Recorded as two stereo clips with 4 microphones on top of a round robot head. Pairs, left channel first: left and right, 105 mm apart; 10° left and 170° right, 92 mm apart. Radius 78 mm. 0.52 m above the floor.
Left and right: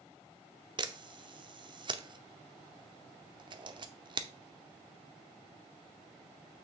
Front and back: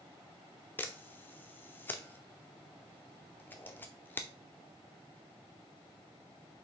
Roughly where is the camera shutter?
Ahead right.